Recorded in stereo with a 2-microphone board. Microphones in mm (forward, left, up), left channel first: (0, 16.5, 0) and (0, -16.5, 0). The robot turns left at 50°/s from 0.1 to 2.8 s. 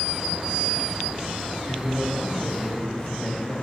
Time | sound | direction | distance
1.7 | a man speaking | 110° left | 1.9 m